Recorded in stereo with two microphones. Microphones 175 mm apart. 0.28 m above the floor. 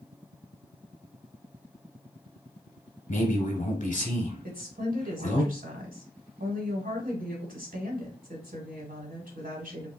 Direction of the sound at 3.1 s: 45° left (ahead or behind).